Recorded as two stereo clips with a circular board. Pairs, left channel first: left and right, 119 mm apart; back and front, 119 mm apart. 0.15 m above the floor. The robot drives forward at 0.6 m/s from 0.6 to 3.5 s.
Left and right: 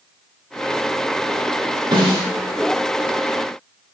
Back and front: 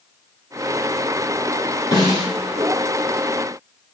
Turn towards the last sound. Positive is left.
turn(degrees=-145)